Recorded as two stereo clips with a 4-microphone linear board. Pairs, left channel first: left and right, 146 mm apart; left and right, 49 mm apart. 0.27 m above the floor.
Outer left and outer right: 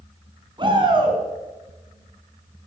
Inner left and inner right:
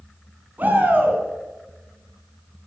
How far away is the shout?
About 3 m.